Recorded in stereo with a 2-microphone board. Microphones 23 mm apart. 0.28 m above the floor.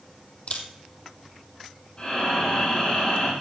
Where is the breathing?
40° left (ahead or behind), 7.5 m.